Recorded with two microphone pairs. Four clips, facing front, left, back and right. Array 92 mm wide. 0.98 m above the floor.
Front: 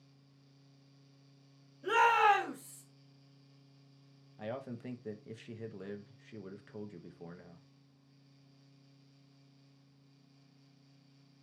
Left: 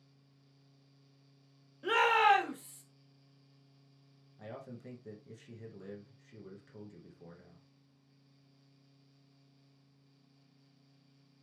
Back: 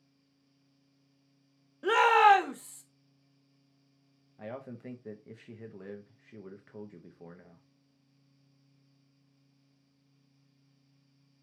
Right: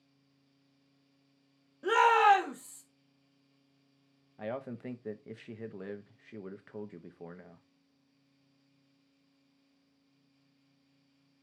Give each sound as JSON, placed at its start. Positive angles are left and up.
{"t": 1.8, "sound": "a shout", "azimuth_deg": -165, "distance_m": 1.2}
{"t": 4.4, "sound": "a man speaking", "azimuth_deg": -85, "distance_m": 0.6}